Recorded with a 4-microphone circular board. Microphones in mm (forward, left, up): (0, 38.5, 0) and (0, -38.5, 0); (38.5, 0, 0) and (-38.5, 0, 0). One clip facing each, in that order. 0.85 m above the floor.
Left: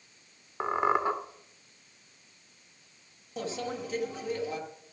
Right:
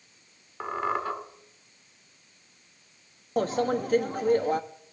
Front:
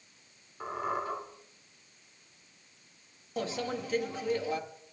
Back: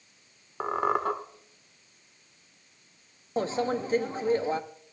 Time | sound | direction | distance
0.6 | a squeak | 160° left | 1.6 m
3.4 | a microwave | 125° right | 0.8 m